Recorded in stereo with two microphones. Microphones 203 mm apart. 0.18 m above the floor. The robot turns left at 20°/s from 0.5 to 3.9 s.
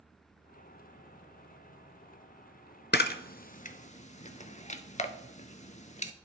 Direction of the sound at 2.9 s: 55° left (ahead or behind).